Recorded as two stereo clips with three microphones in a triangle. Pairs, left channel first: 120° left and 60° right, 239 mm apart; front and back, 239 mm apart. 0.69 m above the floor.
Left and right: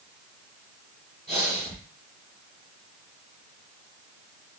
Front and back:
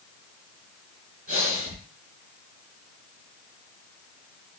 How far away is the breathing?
About 3 m.